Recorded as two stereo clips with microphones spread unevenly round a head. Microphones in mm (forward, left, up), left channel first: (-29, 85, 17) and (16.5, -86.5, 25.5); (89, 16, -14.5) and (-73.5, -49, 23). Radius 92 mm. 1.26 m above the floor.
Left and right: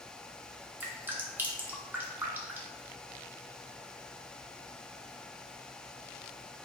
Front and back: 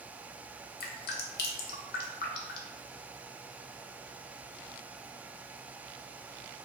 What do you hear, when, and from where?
0.8 s dripping: 5° left, 0.6 m